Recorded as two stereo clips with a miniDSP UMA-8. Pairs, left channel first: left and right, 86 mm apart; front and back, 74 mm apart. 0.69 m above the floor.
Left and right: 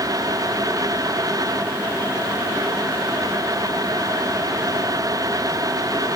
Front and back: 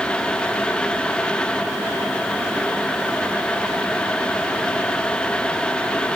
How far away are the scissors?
No scissors in this recording.